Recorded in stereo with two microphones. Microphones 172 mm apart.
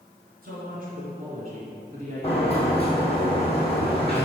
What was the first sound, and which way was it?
A woman speaking, 55° right (ahead or behind).